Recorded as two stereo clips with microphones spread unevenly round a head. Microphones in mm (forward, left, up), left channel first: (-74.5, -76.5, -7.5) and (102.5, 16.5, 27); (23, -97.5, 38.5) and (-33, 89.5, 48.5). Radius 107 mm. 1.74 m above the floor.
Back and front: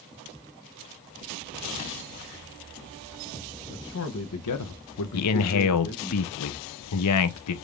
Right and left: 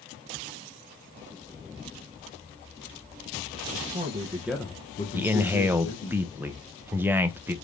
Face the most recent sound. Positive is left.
turn(degrees=-175)